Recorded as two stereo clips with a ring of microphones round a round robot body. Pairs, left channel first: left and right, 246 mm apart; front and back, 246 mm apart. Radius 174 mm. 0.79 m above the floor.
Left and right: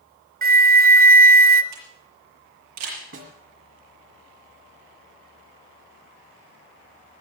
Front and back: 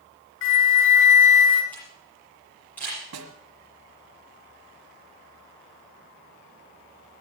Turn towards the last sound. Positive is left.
turn(degrees=-145)